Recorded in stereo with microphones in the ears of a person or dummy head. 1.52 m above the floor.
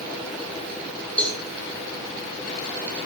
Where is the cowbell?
10° left (ahead or behind), 1.7 m.